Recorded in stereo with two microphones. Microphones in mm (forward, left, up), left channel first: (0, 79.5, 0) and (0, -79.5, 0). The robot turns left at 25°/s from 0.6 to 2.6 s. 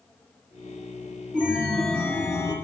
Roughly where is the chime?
Behind.